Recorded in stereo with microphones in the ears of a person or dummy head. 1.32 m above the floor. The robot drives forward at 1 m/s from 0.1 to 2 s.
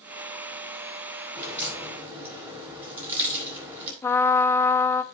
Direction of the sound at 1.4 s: 15° right (ahead or behind).